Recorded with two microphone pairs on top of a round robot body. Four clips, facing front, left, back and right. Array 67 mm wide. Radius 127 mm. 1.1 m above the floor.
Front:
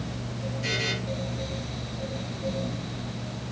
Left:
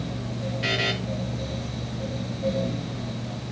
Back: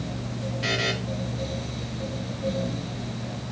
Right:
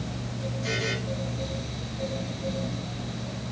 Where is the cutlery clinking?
I don't hear cutlery clinking.